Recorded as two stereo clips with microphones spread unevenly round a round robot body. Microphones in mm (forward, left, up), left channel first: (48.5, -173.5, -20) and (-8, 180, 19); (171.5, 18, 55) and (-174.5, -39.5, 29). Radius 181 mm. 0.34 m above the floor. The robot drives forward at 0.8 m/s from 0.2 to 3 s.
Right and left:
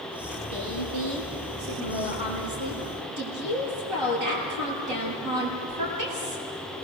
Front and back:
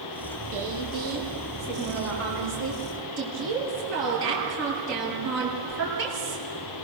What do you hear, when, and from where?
0.5 s a woman speaking: 125° left, 6 m; by 6.4 s 135° left, 7.5 m